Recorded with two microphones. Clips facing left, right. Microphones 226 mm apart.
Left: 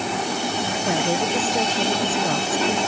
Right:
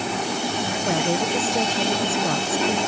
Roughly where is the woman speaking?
Centre.